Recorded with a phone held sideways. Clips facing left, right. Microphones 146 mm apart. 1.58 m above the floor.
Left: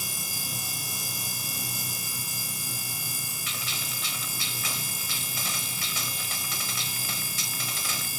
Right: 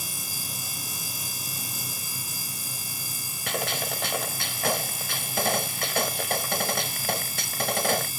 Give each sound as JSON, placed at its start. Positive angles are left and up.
{"t": 3.5, "sound": "a gunshot", "side_deg": -65}